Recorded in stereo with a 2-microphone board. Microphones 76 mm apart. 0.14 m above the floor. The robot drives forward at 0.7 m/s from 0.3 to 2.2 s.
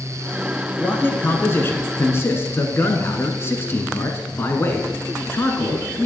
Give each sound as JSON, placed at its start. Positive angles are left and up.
{"t": 0.8, "sound": "a man speaking", "side_deg": 25, "distance_m": 1.5}